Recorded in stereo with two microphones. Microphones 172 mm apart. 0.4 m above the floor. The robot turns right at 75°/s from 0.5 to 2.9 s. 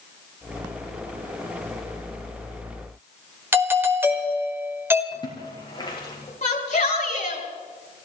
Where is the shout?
50° left (ahead or behind), 5.5 m.